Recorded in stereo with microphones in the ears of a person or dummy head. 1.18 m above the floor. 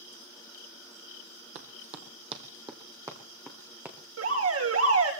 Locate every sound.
1.6 s running footsteps: 50° right (ahead or behind), 1.8 m; by 4.0 s 5° right (ahead or behind), 3.5 m
4.2 s an alarm: 80° right, 6.5 m